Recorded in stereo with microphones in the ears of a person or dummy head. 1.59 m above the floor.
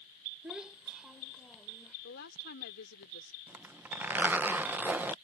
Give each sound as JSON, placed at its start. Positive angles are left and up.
{"t": 0.4, "sound": "a child speaking", "side_deg": -5}
{"t": 2.0, "sound": "a woman speaking", "side_deg": 60}
{"t": 3.5, "sound": "a zipper", "side_deg": -5}